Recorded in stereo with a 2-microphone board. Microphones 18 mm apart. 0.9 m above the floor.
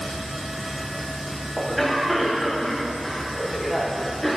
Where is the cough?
Centre (ahead or behind), 1.0 m.